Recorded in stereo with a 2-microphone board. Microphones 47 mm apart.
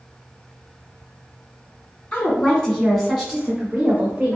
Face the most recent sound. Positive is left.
turn(degrees=-30)  # may be behind; listen again after turning